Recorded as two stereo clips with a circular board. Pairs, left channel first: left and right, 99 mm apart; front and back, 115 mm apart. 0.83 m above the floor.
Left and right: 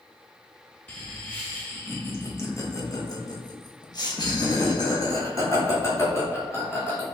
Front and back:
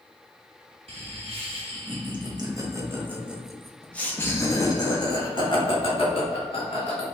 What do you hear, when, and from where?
0.9 s laughter: 165° left, 1.8 m; by 7.0 s 25° left, 2.5 m